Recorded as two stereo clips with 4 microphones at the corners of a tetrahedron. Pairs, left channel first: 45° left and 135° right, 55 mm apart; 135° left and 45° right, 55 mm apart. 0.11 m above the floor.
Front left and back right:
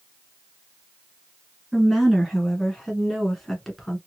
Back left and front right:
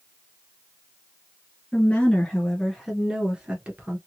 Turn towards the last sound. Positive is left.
turn(degrees=-35)